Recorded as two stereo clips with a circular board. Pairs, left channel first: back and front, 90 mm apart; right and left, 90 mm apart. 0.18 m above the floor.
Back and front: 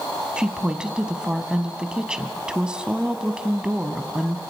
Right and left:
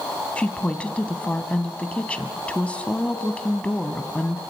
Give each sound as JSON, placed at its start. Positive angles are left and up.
{"t": 0.4, "sound": "a woman speaking", "azimuth_deg": -55, "distance_m": 1.0}